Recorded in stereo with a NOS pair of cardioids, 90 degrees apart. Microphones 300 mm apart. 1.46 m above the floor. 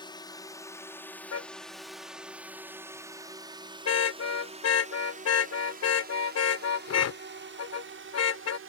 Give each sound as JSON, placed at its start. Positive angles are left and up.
{"t": 0.0, "sound": "a drone", "azimuth_deg": 15}
{"t": 1.3, "sound": "a car horn", "azimuth_deg": 55}